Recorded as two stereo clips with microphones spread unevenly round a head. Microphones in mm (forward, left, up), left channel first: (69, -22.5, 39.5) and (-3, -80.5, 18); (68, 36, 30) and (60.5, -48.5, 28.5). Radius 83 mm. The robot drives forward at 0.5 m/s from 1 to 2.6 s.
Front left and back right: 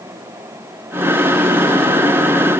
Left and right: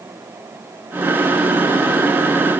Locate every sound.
Only background noise.